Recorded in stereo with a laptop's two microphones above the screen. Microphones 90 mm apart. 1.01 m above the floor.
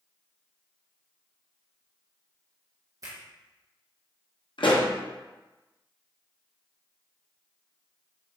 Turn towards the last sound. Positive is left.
turn(degrees=65)  # may be behind; listen again after turning